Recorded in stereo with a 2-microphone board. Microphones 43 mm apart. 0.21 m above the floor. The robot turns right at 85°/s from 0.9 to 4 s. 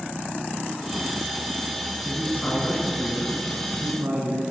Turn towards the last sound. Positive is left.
turn(degrees=-105)